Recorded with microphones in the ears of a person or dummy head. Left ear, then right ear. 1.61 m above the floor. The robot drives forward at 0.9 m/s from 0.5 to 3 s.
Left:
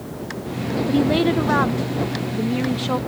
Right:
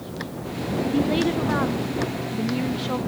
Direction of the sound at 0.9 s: 30° left (ahead or behind).